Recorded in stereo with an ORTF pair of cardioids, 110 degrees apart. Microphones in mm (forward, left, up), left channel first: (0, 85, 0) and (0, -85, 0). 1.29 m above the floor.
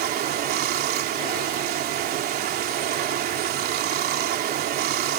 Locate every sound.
0.0 s running water: 65° right